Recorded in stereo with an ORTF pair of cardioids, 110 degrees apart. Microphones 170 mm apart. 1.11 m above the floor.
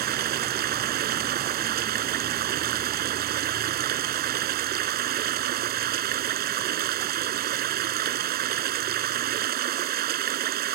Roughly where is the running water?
Ahead right.